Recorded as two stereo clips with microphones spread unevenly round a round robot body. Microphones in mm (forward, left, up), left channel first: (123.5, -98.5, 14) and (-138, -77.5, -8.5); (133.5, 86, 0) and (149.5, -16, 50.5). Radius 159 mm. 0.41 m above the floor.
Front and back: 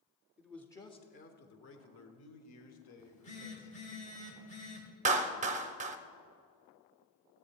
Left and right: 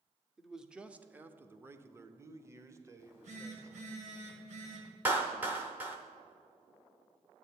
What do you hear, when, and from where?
0.4 s a man speaking: 105° left, 0.8 m; by 3.8 s 5° right, 1.8 m
3.0 s a phone buzzing: 70° right, 2.5 m
5.0 s a clap: 175° left, 0.6 m